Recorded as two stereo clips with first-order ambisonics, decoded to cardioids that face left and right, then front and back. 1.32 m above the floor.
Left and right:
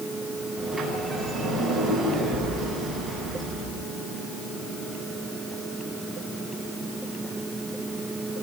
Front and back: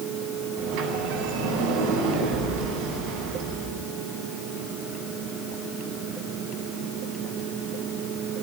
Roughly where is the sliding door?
Behind.